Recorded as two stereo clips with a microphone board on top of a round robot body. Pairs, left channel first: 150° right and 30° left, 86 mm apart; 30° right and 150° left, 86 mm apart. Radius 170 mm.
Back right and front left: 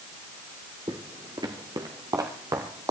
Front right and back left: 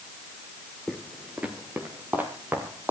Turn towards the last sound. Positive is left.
turn(degrees=80)